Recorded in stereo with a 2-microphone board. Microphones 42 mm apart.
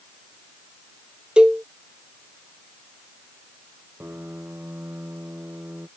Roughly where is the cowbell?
Right.